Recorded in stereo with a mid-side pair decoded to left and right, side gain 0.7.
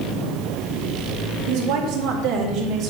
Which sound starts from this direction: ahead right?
A woman speaking, at 1.5 s.